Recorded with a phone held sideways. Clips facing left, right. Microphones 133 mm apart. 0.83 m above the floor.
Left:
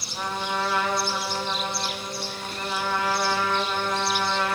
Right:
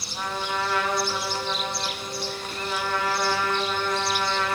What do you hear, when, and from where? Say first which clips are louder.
0.1 s a trumpet: left 1 dB; 5° left (ahead or behind), 3 m